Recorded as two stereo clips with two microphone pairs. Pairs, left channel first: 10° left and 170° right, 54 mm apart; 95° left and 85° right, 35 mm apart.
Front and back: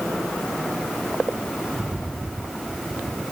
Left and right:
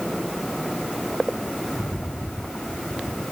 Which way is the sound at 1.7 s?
110° left.